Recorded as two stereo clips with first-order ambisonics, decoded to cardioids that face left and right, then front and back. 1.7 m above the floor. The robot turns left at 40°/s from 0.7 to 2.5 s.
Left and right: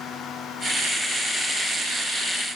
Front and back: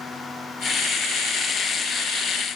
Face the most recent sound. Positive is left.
No sound to turn to.